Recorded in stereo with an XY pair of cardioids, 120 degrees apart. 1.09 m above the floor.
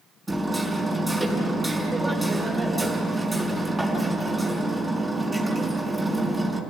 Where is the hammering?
10° right, 5.5 m.